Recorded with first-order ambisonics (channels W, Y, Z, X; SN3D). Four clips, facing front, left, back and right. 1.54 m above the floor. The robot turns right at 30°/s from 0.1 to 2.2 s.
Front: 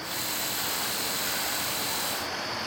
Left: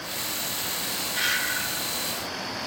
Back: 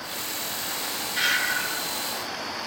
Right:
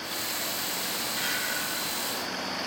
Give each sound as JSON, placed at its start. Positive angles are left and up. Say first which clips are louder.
{"t": 1.2, "sound": "breathing", "louder": "left 6 dB, back 7 dB", "azimuth_deg": 150, "distance_m": 0.8}